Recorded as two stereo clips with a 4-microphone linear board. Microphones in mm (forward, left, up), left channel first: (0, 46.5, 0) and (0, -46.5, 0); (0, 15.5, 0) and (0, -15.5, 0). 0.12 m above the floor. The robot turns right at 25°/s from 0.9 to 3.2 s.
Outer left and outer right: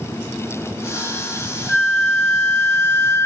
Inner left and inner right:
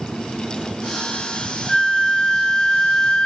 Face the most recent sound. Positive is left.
turn(degrees=45)